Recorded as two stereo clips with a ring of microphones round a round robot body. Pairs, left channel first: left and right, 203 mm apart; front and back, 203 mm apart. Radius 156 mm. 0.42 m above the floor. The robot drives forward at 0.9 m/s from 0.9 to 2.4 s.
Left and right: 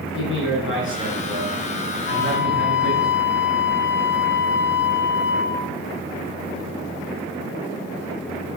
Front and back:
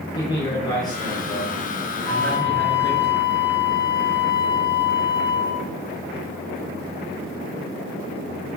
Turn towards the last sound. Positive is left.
turn(degrees=75)